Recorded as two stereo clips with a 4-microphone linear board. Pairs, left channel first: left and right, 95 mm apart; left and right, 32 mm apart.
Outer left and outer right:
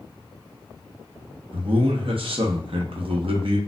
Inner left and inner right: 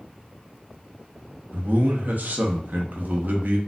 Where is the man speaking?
70° right (ahead or behind), 0.8 m.